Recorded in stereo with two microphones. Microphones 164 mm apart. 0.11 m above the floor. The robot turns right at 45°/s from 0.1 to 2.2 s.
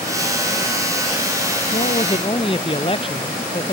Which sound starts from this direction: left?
A man speaking, at 1.7 s.